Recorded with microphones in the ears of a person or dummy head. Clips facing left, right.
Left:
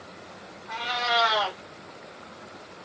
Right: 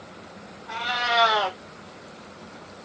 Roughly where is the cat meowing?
Right.